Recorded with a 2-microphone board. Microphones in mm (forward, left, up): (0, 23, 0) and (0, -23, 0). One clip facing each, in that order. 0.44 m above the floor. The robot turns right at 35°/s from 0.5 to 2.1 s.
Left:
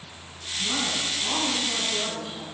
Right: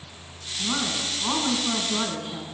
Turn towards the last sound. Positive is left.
turn(degrees=-105)